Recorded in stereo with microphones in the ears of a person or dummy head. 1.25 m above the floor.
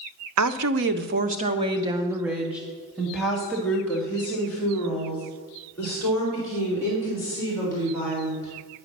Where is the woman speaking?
85° right, 0.5 m; by 8.5 s 15° left (ahead or behind), 4 m.